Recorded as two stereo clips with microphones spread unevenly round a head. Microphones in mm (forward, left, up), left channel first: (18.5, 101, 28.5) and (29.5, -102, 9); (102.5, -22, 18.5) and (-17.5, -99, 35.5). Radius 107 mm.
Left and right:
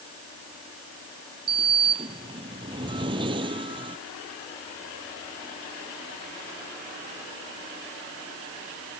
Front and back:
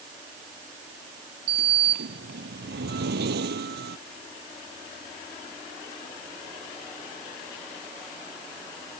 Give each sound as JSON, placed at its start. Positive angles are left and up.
{"t": 1.5, "sound": "a sliding door", "azimuth_deg": -155}